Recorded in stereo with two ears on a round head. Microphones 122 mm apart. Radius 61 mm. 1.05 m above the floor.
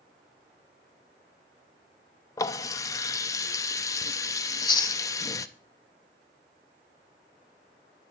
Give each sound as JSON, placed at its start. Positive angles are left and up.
{"t": 2.4, "sound": "a running tap", "side_deg": 25, "distance_m": 0.6}
{"t": 4.5, "sound": "chewing", "side_deg": 30, "distance_m": 0.9}